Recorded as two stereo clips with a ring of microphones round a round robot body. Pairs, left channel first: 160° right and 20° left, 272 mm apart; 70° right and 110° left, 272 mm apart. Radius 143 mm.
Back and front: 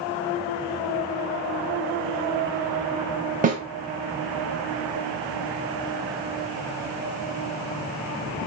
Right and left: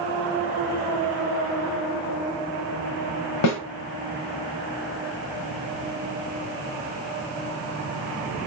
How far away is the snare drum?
About 1.7 m.